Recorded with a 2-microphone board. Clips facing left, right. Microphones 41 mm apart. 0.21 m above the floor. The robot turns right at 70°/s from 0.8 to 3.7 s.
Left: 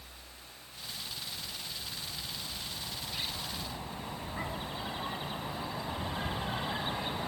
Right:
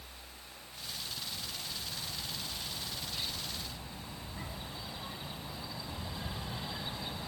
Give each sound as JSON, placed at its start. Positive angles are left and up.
{"t": 1.1, "sound": "a bird", "azimuth_deg": -105, "distance_m": 0.9}